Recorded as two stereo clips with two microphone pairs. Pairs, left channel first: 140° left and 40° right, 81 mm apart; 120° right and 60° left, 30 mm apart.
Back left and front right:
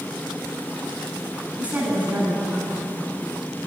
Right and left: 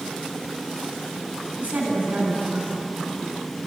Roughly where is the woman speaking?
Ahead left.